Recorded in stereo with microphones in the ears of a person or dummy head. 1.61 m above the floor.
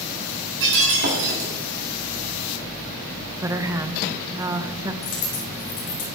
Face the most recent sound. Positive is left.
turn(degrees=45)  # may be behind; listen again after turning